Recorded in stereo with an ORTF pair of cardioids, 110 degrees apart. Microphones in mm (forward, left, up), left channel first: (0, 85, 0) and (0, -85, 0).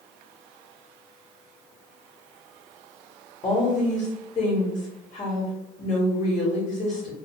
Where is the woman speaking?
40° left, 1.1 m.